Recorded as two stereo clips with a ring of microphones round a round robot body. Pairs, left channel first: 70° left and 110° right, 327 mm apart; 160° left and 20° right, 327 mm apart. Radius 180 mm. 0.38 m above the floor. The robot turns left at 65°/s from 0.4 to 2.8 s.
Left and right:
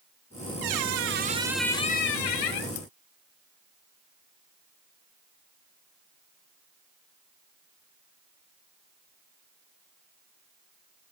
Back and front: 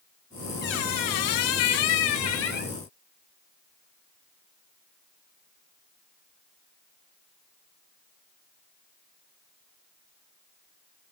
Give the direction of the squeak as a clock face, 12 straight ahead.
5 o'clock.